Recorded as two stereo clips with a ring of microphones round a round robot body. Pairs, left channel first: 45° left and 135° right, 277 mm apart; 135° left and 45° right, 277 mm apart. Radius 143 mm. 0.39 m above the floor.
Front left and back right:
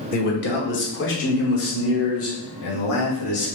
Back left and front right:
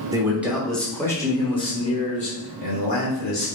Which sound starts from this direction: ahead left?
A man speaking, at 0.1 s.